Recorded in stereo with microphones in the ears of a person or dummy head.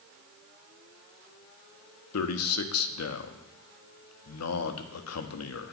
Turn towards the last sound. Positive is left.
turn(degrees=80)